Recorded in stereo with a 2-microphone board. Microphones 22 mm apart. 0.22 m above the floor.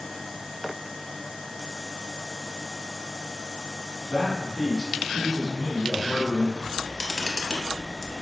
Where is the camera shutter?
5° left (ahead or behind), 0.6 m.